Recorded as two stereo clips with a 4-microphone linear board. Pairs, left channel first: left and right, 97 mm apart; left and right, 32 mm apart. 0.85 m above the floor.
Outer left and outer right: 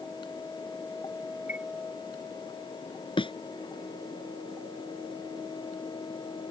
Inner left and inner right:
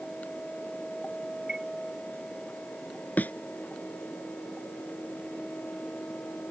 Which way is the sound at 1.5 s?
20° right (ahead or behind).